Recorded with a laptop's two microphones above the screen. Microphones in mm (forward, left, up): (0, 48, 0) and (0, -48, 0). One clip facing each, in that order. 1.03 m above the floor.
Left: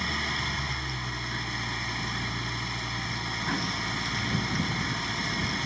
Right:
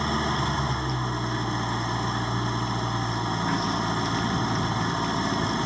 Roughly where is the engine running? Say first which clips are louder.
Right 7 dB; right.